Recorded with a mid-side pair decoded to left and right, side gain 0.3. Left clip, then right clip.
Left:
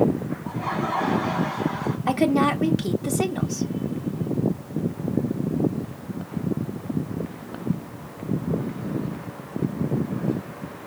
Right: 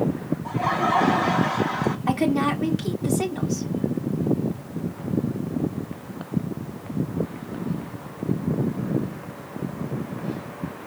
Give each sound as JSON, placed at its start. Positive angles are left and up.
{"t": 0.5, "sound": "laughter", "azimuth_deg": -70, "distance_m": 0.6}
{"t": 2.1, "sound": "a woman speaking", "azimuth_deg": 40, "distance_m": 0.8}